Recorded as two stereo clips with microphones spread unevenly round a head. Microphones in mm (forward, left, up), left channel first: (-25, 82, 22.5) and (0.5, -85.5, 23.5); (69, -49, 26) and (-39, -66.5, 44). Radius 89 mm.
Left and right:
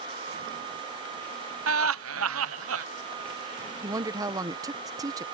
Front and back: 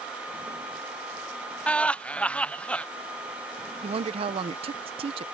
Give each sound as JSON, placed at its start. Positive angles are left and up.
{"t": 1.7, "sound": "laughter", "azimuth_deg": -70}
{"t": 3.8, "sound": "a woman speaking", "azimuth_deg": -150}